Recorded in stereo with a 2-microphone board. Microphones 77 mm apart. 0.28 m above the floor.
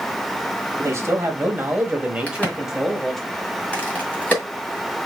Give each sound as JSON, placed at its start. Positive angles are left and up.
{"t": 0.8, "sound": "a man speaking", "side_deg": -40, "distance_m": 1.3}
{"t": 2.3, "sound": "a crack", "side_deg": 20, "distance_m": 1.9}